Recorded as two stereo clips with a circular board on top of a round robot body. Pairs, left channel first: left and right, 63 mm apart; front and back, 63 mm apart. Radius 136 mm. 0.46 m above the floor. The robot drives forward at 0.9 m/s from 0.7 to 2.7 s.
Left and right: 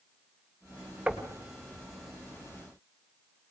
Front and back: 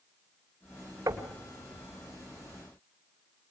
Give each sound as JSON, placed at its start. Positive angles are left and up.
{"t": 1.1, "sound": "knocking", "azimuth_deg": -165, "distance_m": 2.5}